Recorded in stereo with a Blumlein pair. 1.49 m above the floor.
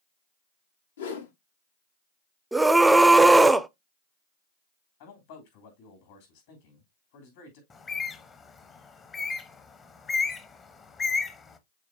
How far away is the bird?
About 1.0 m.